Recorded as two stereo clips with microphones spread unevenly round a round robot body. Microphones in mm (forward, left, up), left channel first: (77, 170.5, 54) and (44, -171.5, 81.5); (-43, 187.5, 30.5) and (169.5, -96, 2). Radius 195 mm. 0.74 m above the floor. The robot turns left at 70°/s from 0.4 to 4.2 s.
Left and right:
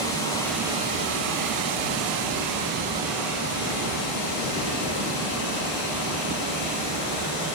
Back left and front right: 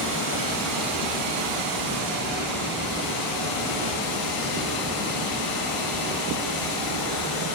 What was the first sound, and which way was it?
Running water, 5° left.